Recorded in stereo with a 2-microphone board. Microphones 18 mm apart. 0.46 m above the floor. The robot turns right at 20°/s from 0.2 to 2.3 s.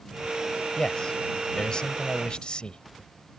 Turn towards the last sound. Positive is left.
turn(degrees=75)